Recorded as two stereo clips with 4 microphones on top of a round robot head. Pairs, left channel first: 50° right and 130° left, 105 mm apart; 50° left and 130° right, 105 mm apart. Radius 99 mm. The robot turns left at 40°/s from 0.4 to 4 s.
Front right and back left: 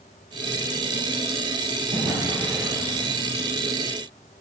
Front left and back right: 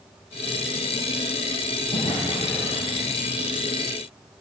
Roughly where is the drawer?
Left.